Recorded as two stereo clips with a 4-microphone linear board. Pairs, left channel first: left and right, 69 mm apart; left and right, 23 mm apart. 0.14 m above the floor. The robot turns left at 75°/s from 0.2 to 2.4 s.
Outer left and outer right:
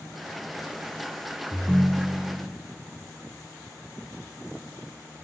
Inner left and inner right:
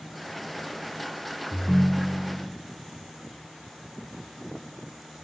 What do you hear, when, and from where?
1.5 s a ringtone: 15° right (ahead or behind), 0.6 m; by 2.5 s 20° right (ahead or behind), 0.6 m